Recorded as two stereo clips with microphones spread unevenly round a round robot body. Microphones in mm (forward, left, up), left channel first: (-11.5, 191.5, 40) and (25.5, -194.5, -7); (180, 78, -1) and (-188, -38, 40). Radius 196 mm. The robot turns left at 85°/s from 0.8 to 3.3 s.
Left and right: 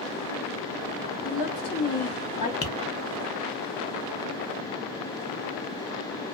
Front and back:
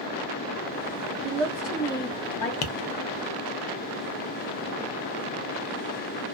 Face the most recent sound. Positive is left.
turn(degrees=-20)